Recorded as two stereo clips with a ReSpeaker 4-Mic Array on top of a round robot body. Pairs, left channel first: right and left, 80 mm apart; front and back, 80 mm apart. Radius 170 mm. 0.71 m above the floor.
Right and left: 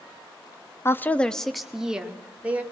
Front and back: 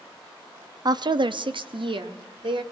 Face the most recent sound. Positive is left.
turn(degrees=160)